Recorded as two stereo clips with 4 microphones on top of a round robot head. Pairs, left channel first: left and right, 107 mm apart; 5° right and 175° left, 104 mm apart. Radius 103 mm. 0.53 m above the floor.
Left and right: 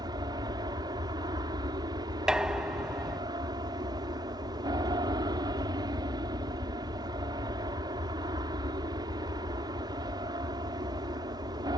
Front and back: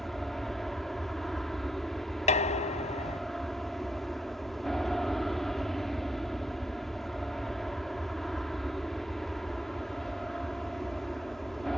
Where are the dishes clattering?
5° right.